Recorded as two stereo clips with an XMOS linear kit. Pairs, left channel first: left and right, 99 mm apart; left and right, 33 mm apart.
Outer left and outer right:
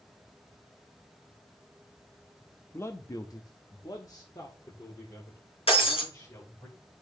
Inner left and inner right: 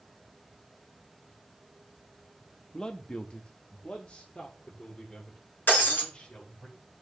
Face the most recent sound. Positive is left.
turn(degrees=70)  # may be behind; listen again after turning